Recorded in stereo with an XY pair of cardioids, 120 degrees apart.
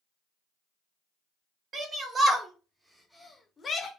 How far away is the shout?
About 1.6 m.